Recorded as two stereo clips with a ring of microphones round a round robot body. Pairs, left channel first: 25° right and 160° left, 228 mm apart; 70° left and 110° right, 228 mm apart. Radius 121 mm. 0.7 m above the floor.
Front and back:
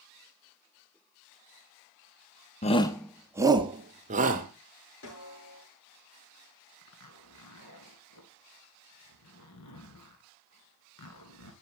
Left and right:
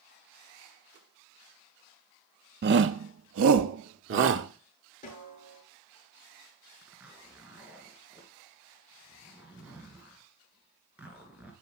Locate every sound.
2.6 s a shout: 80° right, 0.8 m; by 4.5 s 150° right, 1.8 m
5.0 s a snare drum: 10° left, 10 m
6.8 s a zipper: 30° right, 3 m